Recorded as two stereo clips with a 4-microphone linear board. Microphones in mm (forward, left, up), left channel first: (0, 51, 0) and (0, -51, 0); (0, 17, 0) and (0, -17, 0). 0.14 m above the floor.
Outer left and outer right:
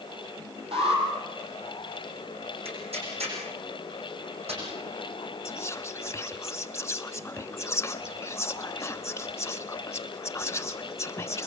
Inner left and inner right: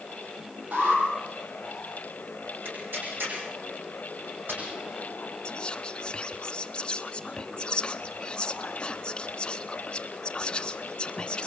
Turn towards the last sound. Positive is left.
turn(degrees=25)  # may be behind; listen again after turning